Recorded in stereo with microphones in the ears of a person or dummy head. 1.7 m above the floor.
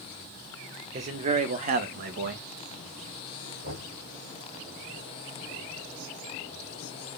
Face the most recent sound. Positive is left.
turn(degrees=-55)  # may be behind; listen again after turning